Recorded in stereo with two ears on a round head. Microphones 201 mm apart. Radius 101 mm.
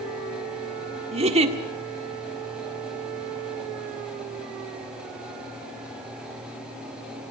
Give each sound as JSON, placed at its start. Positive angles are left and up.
{"t": 1.1, "sound": "a giggle", "side_deg": -25, "distance_m": 1.5}